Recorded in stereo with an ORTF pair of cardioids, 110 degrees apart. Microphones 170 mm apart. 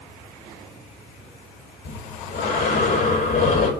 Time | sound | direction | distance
1.8 | breathing | 70° left | 3 m